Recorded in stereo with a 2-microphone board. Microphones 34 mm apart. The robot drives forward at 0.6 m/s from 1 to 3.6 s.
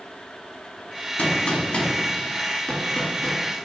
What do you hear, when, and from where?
1.2 s a gunshot: 50° left (ahead or behind), 1.4 m; by 3.5 s 30° left (ahead or behind), 2.5 m